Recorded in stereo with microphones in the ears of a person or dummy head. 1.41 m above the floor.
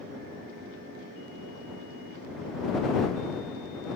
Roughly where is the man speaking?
No man speaking in this recording.